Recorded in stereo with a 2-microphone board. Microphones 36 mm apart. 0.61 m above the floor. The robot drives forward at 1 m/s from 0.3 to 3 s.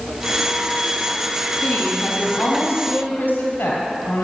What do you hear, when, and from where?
1.6 s a woman speaking: 70° left (ahead or behind), 3.5 m; by 4.2 s 65° left (ahead or behind), 4 m